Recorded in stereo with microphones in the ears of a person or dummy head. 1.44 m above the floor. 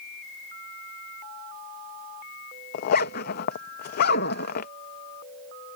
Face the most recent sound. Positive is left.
turn(degrees=55)  # may be behind; listen again after turning